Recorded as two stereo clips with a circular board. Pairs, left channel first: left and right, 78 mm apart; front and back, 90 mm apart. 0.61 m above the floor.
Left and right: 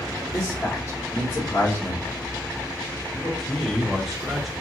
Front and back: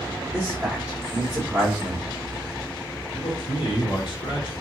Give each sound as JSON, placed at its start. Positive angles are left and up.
{"t": 0.3, "sound": "a man speaking", "azimuth_deg": 115, "distance_m": 1.4}
{"t": 3.1, "sound": "a man speaking", "azimuth_deg": 0, "distance_m": 1.4}